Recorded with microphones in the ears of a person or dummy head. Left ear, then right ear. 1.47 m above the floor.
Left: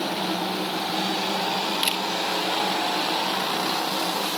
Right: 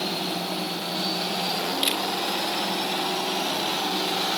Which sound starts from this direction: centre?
A camera shutter, at 1.8 s.